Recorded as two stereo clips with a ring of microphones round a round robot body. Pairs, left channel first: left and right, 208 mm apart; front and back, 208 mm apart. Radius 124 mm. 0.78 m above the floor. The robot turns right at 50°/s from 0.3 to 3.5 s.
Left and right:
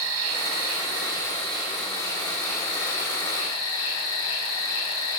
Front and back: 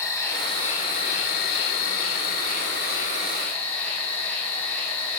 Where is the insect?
75° right, 2.5 m; by 5.2 s 85° left, 2.5 m.